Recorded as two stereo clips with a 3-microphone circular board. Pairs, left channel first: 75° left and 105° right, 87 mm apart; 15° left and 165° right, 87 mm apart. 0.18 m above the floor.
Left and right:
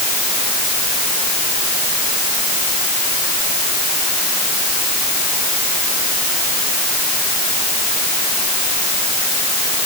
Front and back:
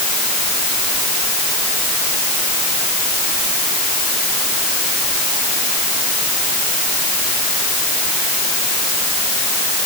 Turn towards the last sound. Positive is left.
No sound to turn to.